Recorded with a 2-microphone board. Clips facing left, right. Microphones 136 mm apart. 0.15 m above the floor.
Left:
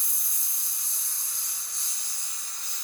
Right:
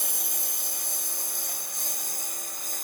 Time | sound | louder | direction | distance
0.0 | a lawn mower | right 11 dB | 65° right (ahead or behind) | ?